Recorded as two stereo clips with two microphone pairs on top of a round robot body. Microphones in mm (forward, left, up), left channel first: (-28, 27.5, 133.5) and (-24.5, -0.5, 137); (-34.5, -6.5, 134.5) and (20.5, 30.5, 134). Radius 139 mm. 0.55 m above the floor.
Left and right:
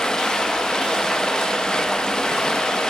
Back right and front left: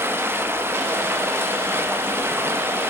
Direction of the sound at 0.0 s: 65° left.